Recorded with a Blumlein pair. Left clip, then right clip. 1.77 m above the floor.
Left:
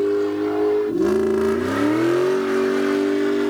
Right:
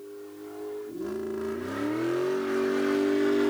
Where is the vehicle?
40° left; by 3.5 s 10° left.